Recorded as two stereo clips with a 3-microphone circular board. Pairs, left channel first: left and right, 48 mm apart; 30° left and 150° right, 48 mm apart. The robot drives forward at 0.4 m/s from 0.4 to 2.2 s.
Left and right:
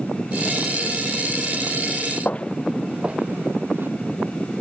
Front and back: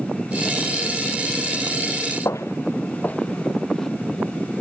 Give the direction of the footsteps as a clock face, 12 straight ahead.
11 o'clock.